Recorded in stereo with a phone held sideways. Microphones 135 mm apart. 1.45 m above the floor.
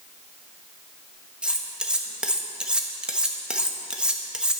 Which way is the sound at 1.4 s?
10° right (ahead or behind).